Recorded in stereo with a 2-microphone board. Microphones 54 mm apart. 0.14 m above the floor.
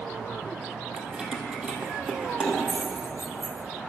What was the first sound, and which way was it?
Keys jangling, 15° right (ahead or behind).